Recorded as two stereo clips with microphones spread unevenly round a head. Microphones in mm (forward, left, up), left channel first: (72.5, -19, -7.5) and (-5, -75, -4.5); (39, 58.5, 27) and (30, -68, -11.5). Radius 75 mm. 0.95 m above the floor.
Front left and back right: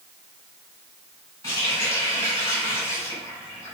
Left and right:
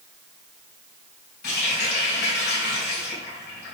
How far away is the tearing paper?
I don't hear tearing paper.